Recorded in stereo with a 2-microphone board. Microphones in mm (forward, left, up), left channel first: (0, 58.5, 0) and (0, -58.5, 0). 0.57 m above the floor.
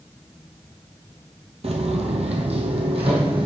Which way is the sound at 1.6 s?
60° right (ahead or behind).